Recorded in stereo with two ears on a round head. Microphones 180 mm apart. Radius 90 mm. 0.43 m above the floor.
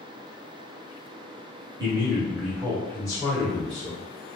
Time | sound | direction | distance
1.8 | a man speaking | 20° right (ahead or behind) | 1.1 m